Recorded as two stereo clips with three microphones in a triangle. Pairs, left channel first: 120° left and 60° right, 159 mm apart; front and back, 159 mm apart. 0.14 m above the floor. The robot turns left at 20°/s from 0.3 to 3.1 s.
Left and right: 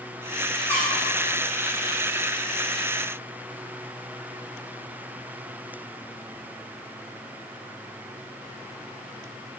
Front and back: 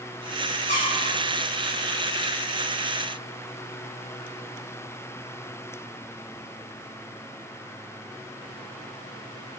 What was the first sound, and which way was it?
A squeak, 45° left.